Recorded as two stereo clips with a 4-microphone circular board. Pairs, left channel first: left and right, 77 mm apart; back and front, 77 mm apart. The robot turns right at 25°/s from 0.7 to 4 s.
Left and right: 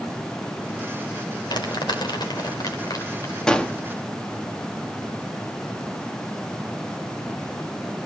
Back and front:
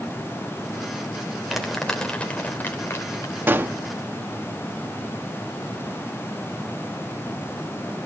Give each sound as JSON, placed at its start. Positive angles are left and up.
{"t": 1.5, "sound": "crumpling", "azimuth_deg": 85, "distance_m": 3.0}
{"t": 3.5, "sound": "a gunshot", "azimuth_deg": 20, "distance_m": 1.0}